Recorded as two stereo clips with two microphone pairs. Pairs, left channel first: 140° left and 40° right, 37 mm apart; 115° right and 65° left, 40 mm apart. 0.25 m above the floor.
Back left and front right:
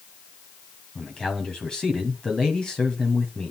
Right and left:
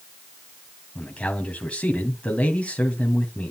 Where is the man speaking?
160° right, 2 m.